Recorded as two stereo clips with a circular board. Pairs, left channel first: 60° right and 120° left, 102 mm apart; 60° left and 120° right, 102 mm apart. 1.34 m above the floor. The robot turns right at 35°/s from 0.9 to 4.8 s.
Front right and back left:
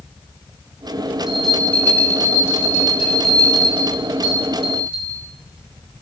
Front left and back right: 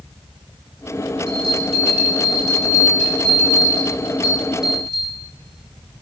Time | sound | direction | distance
1.3 | a bell | 155° right | 1.9 m